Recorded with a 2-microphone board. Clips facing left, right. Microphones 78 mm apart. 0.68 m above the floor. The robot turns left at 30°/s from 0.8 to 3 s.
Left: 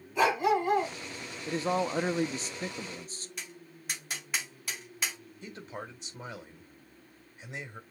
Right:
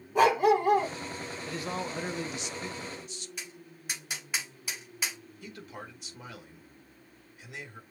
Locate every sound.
0.1 s a dog barking: 55° right (ahead or behind), 4 m; by 0.9 s 50° right (ahead or behind), 4 m
1.5 s a man speaking: 130° left, 0.5 m; by 3.3 s 85° left, 0.5 m
3.4 s tapping: 5° right (ahead or behind), 3 m
5.4 s a man speaking: 25° left (ahead or behind), 1.8 m